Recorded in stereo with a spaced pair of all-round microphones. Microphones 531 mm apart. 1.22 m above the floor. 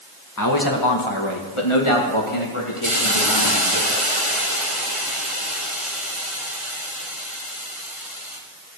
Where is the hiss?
85° left, 3.5 m.